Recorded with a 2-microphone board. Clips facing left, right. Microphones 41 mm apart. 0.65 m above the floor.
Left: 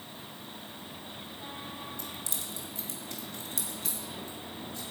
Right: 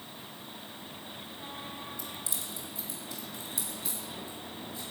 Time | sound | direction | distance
2.0 | keys jangling | 55° left (ahead or behind) | 1.6 m